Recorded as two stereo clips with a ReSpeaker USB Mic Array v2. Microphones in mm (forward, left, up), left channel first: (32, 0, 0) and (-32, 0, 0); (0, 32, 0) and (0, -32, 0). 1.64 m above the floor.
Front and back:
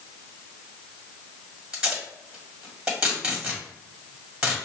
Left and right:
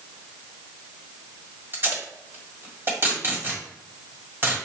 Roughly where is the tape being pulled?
Right.